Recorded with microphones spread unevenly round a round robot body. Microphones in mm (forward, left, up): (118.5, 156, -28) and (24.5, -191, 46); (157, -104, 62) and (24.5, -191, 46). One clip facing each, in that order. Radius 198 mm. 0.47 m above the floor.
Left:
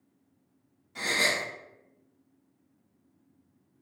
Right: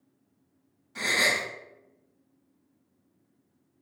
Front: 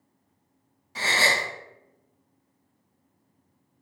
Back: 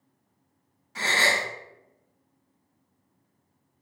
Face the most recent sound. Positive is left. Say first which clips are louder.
# right 1 dB, even
turn(degrees=-25)